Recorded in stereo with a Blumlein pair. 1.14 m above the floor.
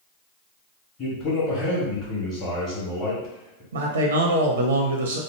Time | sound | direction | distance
1.0 | a man speaking | 30° left | 1.2 m
3.7 | a man speaking | 65° right | 0.6 m